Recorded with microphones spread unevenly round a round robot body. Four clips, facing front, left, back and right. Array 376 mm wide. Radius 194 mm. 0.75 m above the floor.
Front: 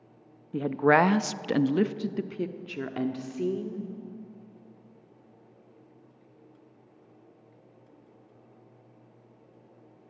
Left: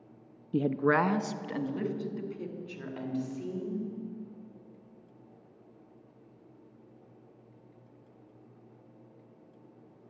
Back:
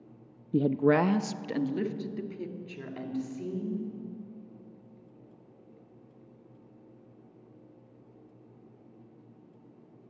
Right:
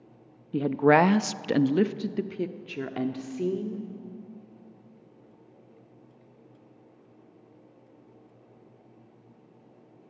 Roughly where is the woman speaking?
Behind.